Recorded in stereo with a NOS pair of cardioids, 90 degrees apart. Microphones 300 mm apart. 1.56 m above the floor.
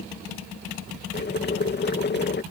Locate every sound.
1.1 s boiling: 35° left